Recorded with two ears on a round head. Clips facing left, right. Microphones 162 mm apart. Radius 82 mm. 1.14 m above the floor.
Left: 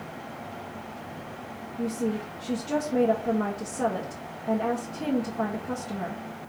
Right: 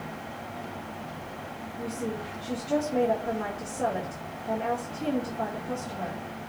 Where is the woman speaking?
65° left (ahead or behind), 1.7 m.